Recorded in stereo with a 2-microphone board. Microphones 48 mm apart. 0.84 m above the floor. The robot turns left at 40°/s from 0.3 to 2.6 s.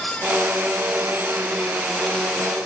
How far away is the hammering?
I don't hear hammering.